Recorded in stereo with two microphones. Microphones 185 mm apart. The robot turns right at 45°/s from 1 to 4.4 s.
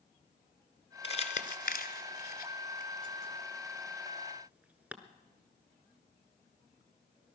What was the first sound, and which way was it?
Crumpling, 30° left (ahead or behind).